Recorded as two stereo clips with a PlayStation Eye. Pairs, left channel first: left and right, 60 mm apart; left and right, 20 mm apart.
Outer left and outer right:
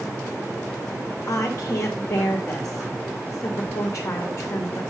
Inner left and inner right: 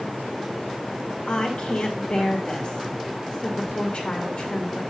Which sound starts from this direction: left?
A woman speaking, at 1.3 s.